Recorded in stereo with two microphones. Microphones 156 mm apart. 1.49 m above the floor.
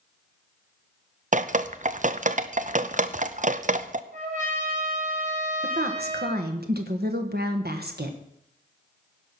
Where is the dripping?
50° right (ahead or behind), 0.5 m.